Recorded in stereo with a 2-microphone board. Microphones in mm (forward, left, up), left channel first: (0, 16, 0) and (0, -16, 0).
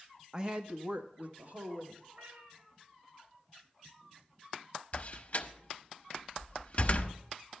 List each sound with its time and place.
0.3 s a woman speaking: 20° right (ahead or behind), 0.6 m; by 2.0 s 55° right (ahead or behind), 2 m
2.1 s a cat meowing: 70° right (ahead or behind), 4 m
4.9 s a door slam: 45° left (ahead or behind), 0.8 m